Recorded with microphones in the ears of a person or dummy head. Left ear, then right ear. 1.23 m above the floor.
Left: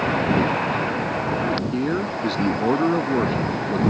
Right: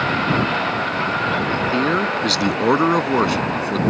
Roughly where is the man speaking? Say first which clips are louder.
Right 6 dB; right.